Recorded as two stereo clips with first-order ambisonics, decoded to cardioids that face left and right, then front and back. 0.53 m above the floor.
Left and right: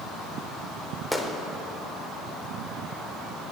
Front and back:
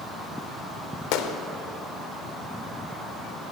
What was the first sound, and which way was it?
A gunshot, 5° left.